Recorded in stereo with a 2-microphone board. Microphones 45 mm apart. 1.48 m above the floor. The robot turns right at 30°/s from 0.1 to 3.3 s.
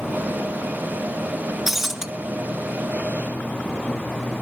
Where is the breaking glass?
5° right (ahead or behind), 0.7 m; by 2.1 s 15° right (ahead or behind), 0.7 m.